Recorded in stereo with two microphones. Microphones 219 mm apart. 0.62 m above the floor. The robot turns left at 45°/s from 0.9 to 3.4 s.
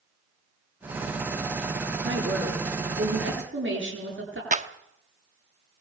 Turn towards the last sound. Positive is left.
turn(degrees=-35)  # may be behind; listen again after turning